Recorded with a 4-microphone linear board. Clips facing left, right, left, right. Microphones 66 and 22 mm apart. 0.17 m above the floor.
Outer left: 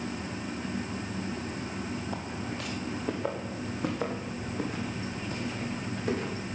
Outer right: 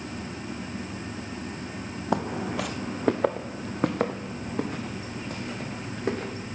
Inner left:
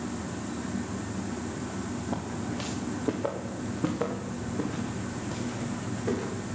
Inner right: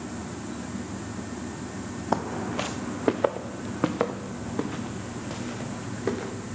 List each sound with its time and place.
2.1 s footsteps: 80° right, 0.6 m; by 6.3 s 55° right (ahead or behind), 4.5 m